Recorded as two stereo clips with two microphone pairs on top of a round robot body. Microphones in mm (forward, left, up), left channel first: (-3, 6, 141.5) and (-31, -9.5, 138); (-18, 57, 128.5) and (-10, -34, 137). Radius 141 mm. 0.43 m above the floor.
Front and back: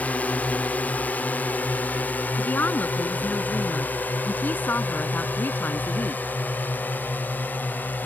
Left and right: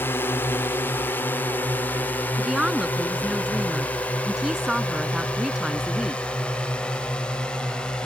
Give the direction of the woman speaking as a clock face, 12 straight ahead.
12 o'clock.